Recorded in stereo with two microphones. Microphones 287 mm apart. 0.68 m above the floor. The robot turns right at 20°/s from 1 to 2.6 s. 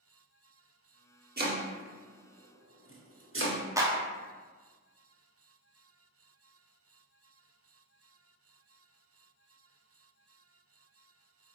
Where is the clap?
10° right (ahead or behind), 0.5 m.